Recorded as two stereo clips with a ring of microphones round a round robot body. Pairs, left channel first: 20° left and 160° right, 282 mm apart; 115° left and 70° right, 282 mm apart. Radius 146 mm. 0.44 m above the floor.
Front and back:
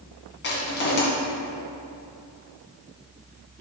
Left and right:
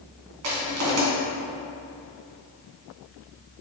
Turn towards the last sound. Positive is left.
turn(degrees=-30)